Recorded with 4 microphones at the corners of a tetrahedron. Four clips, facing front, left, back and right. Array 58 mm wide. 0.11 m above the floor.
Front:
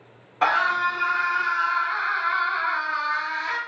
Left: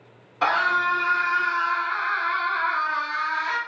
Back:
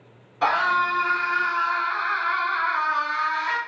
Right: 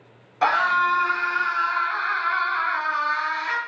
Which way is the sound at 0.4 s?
20° right.